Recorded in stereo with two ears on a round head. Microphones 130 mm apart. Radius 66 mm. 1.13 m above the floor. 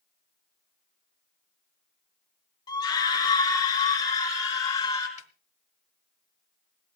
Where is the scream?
30° left (ahead or behind), 2.5 m; by 5.1 s 25° left (ahead or behind), 5.5 m.